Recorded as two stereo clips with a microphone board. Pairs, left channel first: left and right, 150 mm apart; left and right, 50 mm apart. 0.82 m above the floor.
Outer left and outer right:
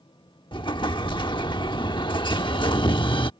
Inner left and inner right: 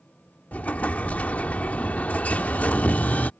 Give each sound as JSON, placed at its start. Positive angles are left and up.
{"t": 0.5, "sound": "an explosion", "side_deg": 35}